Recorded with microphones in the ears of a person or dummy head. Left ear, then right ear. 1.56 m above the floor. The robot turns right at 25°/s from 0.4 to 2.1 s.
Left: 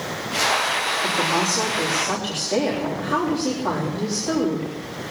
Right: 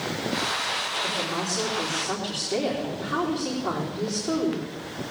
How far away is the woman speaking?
About 3.5 m.